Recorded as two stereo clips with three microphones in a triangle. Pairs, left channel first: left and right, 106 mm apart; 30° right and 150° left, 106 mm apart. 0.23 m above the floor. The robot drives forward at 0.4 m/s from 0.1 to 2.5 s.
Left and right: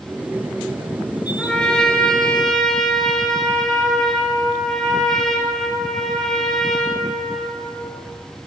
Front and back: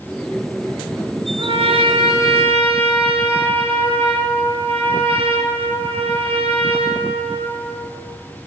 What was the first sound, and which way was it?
A trumpet, 170° left.